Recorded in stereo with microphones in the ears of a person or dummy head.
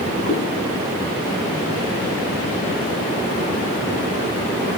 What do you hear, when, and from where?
0.2 s a cat meowing: 55° left (ahead or behind), 5.5 m